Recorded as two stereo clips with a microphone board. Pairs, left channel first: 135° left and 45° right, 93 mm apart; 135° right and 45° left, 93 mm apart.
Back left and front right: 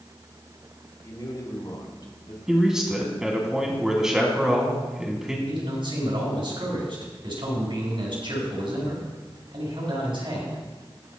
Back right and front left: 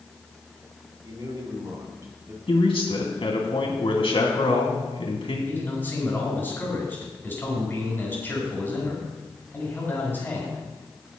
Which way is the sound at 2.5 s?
130° right.